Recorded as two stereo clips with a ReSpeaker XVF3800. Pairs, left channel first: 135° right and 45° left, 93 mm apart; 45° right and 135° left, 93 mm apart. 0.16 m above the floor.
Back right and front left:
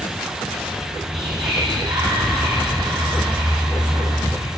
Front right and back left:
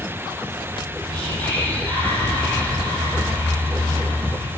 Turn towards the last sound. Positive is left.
turn(degrees=30)